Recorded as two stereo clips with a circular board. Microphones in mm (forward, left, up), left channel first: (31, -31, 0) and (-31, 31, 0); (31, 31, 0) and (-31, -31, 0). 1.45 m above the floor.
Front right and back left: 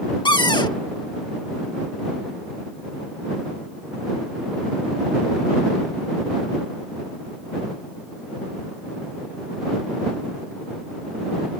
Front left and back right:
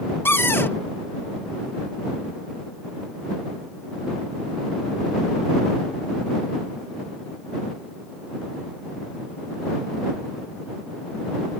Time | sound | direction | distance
0.2 | a cupboard door | 15° right | ?